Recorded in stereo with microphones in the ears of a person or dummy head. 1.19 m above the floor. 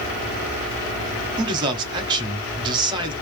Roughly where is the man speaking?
Right.